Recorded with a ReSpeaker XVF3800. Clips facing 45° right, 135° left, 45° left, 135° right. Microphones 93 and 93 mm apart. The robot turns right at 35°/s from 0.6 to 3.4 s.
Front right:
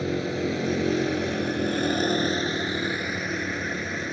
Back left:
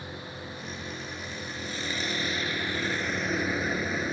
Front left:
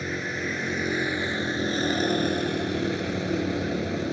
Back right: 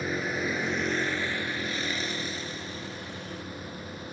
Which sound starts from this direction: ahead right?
A vehicle, at 0.0 s.